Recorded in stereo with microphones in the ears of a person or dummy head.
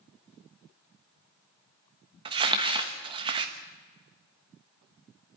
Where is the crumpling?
20° right (ahead or behind), 1.1 m.